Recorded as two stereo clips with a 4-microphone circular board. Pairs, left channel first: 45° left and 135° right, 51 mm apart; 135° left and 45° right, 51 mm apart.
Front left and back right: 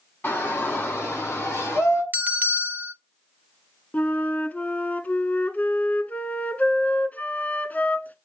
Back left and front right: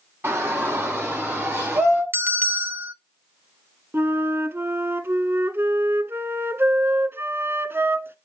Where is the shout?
5° right, 5 m; by 2.0 s 10° left, 5 m.